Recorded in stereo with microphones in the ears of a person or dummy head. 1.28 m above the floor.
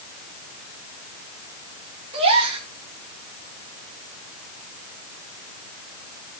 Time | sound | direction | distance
2.1 | a gasp | 30° right (ahead or behind) | 3.5 m